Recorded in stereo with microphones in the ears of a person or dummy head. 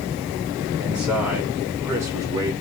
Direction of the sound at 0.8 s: 5° right (ahead or behind).